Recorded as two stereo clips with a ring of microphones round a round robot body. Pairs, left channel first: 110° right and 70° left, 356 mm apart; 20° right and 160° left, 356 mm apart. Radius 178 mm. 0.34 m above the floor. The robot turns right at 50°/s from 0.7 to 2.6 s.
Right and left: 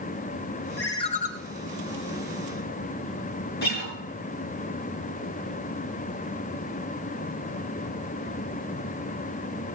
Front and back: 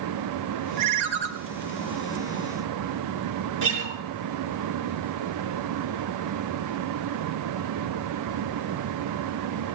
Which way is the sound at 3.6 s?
175° right.